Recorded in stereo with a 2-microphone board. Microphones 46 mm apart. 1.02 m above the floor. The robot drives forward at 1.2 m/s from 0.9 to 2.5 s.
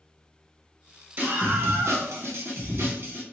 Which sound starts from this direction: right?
A scream, at 1.2 s.